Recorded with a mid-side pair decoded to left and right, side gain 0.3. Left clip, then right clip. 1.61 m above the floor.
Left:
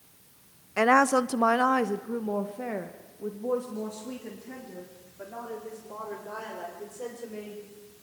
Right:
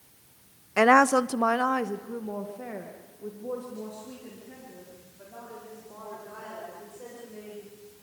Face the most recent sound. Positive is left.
turn(degrees=70)